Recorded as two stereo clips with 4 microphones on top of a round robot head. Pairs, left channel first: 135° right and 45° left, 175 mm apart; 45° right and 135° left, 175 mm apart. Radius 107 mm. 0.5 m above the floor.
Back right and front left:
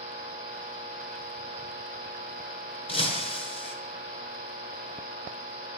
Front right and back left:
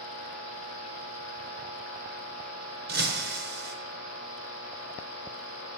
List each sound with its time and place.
2.9 s breaking glass: 165° left, 4.5 m